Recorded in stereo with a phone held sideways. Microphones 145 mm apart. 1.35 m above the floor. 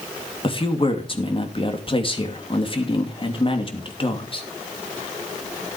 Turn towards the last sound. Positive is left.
turn(degrees=35)  # may be behind; listen again after turning